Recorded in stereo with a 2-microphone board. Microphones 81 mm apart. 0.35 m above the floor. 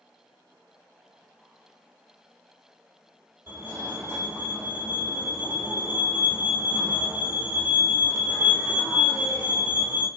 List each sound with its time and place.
3.5 s a fire alarm: 25° right (ahead or behind), 2 m